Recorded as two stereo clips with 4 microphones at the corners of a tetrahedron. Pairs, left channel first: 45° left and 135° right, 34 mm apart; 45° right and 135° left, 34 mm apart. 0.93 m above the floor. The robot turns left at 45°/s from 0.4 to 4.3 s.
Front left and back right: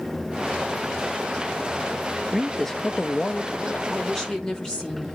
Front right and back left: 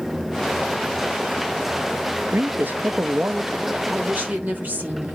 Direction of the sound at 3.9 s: 125° left.